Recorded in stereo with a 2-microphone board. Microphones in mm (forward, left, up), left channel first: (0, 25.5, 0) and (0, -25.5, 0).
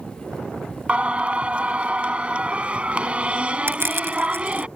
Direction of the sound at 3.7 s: 50° right (ahead or behind).